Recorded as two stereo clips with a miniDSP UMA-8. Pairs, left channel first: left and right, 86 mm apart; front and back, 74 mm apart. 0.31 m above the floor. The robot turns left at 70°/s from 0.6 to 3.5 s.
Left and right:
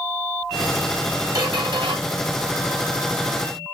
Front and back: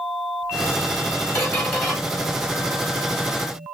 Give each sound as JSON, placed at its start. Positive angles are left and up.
{"t": 1.4, "sound": "a squeak", "azimuth_deg": -50, "distance_m": 1.2}